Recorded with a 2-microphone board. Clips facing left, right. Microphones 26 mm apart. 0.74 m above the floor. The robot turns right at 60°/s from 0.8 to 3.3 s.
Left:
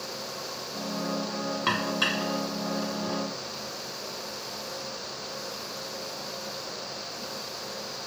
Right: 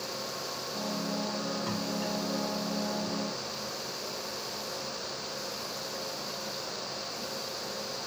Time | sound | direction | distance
1.7 | dishes clattering | 60° left (ahead or behind) | ?